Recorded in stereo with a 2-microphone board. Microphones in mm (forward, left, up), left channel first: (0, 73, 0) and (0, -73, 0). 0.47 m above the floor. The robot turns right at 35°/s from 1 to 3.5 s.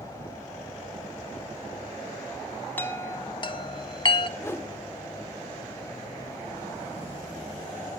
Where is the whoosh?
20° left (ahead or behind), 1.0 m.